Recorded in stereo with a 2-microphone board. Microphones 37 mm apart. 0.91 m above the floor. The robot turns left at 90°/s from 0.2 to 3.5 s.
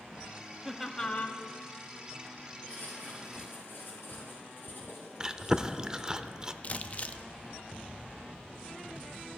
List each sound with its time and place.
0.7 s laughter: 165° right, 1.3 m; by 1.4 s 130° left, 1.3 m
2.7 s writing: 140° left, 6.5 m; by 6.1 s 70° left, 6.5 m
5.2 s chewing: 20° right (ahead or behind), 0.6 m
6.6 s crumpling: 40° left (ahead or behind), 0.5 m